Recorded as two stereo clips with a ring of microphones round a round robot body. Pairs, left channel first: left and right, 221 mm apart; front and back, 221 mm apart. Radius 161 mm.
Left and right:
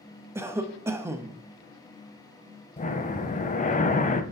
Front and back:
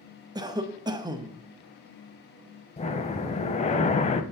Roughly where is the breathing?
Ahead left.